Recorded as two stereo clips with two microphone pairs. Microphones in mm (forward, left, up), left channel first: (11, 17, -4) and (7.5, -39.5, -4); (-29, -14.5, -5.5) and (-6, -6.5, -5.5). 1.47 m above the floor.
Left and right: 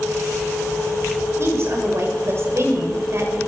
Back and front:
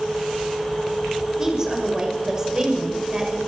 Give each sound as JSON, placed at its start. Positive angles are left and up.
{"t": 1.4, "sound": "a woman speaking", "azimuth_deg": -50, "distance_m": 6.5}